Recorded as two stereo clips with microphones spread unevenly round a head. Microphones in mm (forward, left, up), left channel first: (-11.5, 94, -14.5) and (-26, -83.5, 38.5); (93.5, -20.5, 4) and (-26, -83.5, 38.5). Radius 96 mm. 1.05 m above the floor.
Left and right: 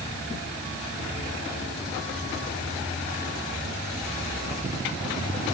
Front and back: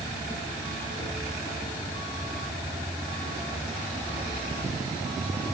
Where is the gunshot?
No gunshot in this recording.